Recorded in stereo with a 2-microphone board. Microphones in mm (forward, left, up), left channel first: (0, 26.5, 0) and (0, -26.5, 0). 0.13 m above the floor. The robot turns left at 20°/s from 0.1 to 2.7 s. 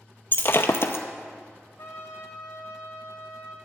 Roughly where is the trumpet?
Left.